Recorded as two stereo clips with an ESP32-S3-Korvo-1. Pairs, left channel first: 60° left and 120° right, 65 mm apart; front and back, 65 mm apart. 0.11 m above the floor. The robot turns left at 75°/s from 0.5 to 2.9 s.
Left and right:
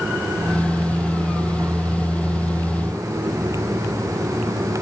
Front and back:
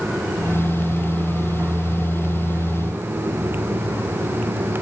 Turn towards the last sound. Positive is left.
No sound to turn to.